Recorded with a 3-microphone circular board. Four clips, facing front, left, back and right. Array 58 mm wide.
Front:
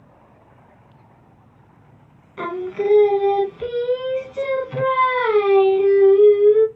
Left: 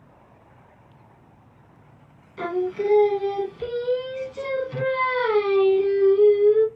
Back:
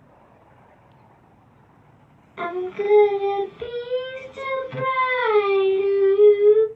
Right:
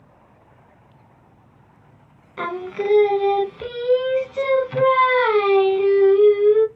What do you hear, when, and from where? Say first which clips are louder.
2.4 s singing: left 1 dB, front 2 dB; 95° right, 0.5 m